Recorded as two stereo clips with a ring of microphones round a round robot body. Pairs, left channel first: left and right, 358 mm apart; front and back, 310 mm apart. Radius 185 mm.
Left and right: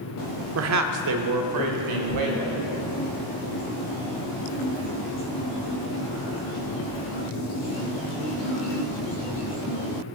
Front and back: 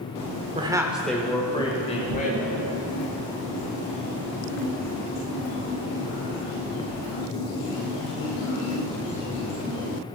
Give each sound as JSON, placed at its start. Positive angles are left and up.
{"t": 0.6, "sound": "a woman speaking", "azimuth_deg": -115, "distance_m": 1.0}